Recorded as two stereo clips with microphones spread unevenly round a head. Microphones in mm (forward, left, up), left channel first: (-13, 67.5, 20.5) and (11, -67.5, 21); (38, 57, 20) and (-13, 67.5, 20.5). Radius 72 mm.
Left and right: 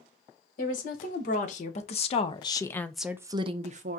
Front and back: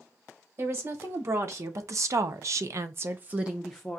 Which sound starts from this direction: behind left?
A woman speaking, at 0.6 s.